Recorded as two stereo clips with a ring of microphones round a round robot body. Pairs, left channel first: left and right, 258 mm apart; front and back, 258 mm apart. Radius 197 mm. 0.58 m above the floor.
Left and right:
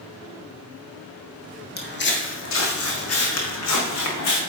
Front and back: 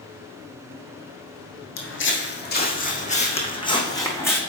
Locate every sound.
1.8 s footsteps: 40° left, 1.6 m; by 4.4 s 80° left, 2.0 m